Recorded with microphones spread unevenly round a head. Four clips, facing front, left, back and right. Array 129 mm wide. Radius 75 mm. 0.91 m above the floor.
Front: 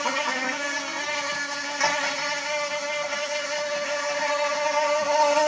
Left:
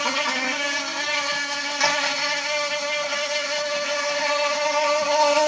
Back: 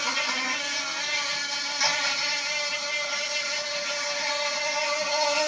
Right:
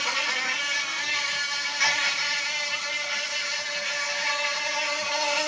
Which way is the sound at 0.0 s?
50° left.